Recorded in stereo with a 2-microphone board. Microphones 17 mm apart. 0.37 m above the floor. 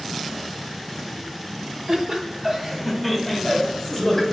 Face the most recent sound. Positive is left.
turn(degrees=30)  # may be behind; listen again after turning